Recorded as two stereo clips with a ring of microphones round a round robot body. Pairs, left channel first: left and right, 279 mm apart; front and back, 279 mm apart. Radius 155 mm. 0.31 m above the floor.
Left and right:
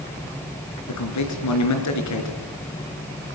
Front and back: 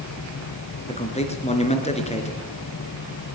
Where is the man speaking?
65° left, 4 m.